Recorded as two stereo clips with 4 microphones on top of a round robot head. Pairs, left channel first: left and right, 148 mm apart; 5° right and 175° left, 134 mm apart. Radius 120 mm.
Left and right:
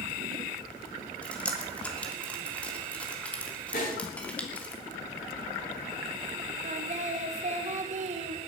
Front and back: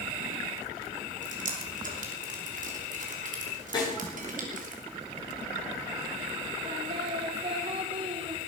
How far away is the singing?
About 1.7 m.